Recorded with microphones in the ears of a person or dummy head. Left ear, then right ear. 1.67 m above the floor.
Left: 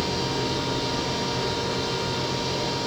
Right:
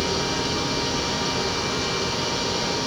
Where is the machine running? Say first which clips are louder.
Right 2 dB; 75° right (ahead or behind), 5 m.